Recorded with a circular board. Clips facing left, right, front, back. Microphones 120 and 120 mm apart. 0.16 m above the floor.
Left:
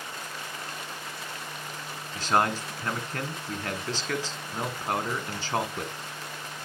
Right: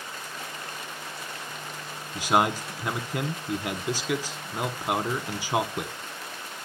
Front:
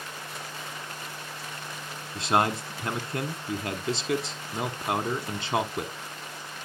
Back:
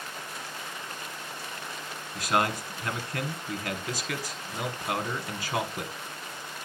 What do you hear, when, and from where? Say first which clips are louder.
2.1 s a man speaking: right 2 dB, front 2 dB; 25° right, 1.2 m